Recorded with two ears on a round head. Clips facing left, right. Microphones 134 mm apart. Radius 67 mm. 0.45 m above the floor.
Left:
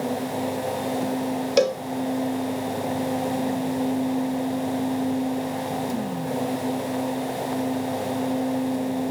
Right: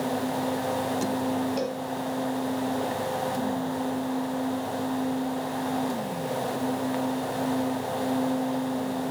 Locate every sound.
1.6 s a cowbell: 80° left, 0.6 m